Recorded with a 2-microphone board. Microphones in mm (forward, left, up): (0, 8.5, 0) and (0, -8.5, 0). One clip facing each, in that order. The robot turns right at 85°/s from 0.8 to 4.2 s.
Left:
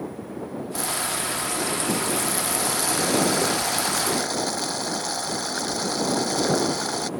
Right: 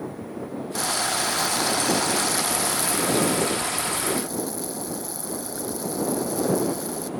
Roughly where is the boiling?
Behind right.